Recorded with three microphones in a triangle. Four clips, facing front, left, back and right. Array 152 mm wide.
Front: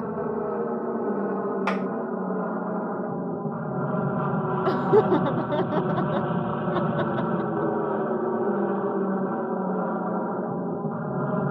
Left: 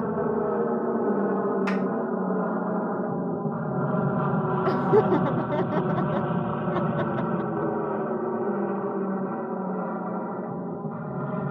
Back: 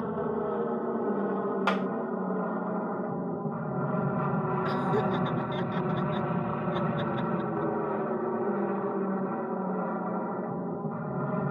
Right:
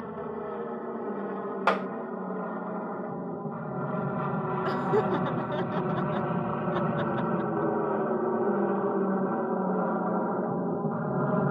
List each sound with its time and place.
0.0 s an aircraft: 75° left; by 11.5 s 45° right
1.7 s a clap: 85° right
4.7 s laughter: 35° left